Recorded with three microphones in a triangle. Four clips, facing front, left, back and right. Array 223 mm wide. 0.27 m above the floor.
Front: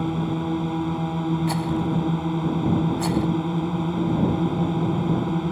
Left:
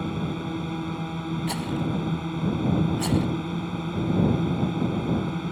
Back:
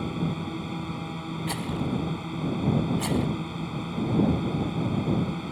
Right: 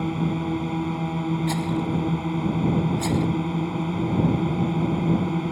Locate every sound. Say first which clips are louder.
0.0 s a drone: right 4 dB, front 5 dB; 25° right
1.5 s a rattle: right 3 dB, front 6 dB; 10° right